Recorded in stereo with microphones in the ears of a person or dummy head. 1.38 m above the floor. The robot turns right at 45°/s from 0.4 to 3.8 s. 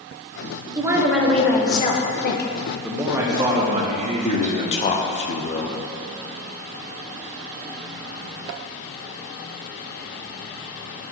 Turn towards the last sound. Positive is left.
turn(degrees=30)  # may be behind; listen again after turning